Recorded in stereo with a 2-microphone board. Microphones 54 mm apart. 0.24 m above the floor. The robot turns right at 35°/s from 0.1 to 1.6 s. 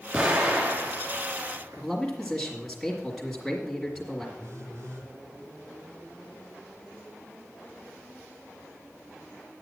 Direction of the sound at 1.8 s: Centre (ahead or behind).